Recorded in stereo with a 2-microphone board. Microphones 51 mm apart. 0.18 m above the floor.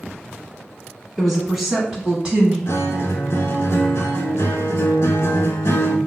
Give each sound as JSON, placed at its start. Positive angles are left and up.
{"t": 1.2, "sound": "a woman speaking", "side_deg": 0, "distance_m": 1.4}
{"t": 2.7, "sound": "a guitar", "side_deg": 65, "distance_m": 0.6}